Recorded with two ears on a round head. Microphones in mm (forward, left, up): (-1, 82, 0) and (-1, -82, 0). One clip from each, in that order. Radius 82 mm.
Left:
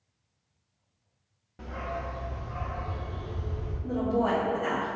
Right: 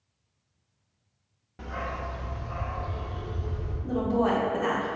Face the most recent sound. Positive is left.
turn(degrees=-35)  # may be behind; listen again after turning